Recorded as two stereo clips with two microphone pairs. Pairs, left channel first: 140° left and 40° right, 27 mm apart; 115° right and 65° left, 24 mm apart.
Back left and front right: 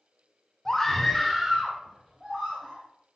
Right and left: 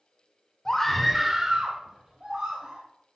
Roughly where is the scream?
Behind right.